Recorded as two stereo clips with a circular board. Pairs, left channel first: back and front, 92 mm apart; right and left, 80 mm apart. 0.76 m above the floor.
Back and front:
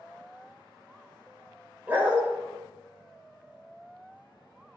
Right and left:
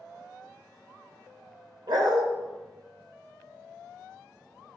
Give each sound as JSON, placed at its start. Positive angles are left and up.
{"t": 1.9, "sound": "a dog barking", "azimuth_deg": 70, "distance_m": 1.0}